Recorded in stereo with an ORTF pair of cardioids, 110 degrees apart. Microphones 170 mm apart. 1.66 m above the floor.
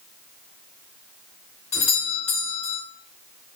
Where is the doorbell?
40° left, 0.9 m.